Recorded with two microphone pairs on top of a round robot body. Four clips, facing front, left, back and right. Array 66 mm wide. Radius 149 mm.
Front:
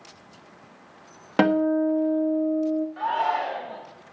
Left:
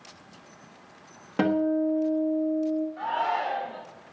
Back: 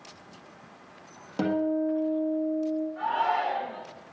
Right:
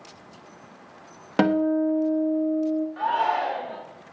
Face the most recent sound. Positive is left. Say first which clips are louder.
# right 4 dB, back 1 dB
turn(degrees=-70)